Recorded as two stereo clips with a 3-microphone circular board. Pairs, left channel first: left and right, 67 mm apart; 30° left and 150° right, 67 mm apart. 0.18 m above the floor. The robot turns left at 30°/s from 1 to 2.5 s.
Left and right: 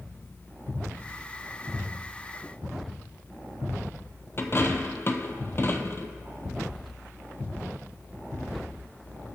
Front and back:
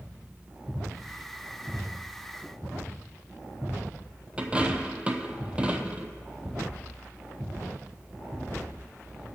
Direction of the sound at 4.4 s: 140° left.